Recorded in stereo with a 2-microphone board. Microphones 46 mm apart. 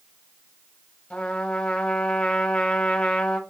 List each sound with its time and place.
1.1 s a trumpet: 25° left (ahead or behind), 0.8 m